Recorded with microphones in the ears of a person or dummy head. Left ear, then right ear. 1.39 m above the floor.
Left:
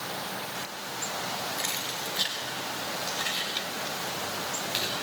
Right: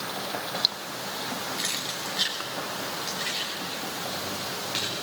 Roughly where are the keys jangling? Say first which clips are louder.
Right 1 dB; centre.